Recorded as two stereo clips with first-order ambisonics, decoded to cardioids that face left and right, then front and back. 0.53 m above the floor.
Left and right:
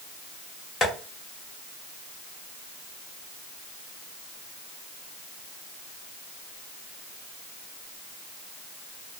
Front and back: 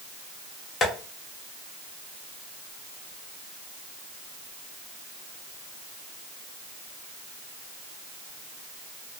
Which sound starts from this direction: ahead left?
Tapping, at 0.8 s.